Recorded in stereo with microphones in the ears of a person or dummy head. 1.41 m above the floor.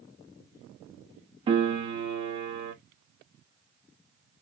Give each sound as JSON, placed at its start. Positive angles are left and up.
{"t": 1.5, "sound": "a piano", "side_deg": -30, "distance_m": 1.2}